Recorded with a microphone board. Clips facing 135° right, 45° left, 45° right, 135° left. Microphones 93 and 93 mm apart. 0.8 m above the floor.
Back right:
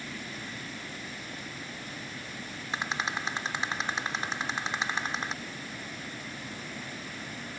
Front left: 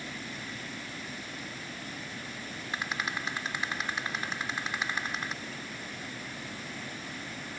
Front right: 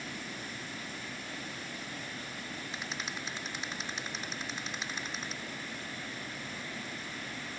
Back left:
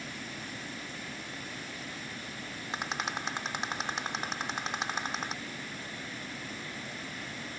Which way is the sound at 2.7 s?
160° left.